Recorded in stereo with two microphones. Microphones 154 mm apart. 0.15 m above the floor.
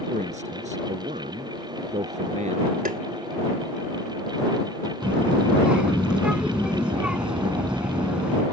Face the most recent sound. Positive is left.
turn(degrees=-5)  # may be behind; listen again after turning